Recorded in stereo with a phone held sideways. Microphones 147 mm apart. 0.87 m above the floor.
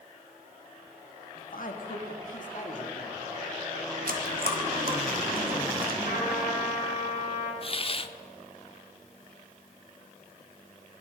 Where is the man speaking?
65° left (ahead or behind), 1.4 m; by 3.2 s 50° left (ahead or behind), 2 m.